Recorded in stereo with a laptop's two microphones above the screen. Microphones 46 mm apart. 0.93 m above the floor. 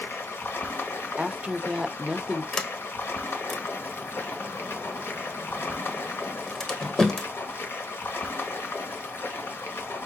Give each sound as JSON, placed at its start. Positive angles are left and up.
{"t": 0.0, "sound": "running water", "side_deg": 60, "distance_m": 1.2}
{"t": 1.2, "sound": "a woman speaking", "side_deg": -20, "distance_m": 0.5}
{"t": 2.5, "sound": "a sliding door", "side_deg": 15, "distance_m": 1.1}